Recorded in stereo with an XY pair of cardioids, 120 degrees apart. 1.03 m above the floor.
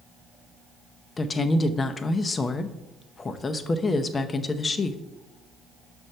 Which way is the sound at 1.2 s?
30° left.